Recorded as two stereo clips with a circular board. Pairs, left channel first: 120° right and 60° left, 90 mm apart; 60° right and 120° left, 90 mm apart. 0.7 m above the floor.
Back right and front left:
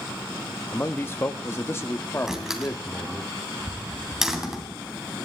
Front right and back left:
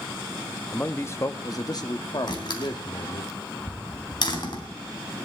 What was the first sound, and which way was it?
A man speaking, 110° right.